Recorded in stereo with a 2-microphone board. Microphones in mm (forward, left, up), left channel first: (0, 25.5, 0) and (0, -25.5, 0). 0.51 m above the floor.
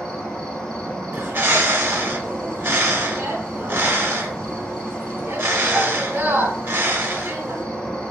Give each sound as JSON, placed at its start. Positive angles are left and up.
{"t": 0.0, "sound": "an insect", "side_deg": 15, "distance_m": 1.0}
{"t": 1.1, "sound": "a bird", "side_deg": -50, "distance_m": 0.7}